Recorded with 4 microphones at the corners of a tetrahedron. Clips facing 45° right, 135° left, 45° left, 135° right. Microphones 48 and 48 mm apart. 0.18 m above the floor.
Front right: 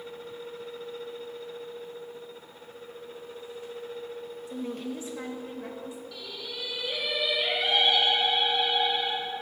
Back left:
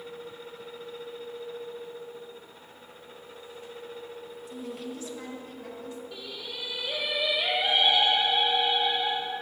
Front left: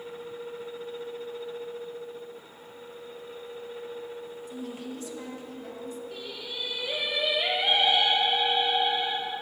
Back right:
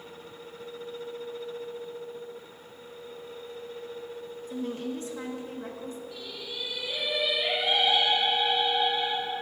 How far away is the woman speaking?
About 3 m.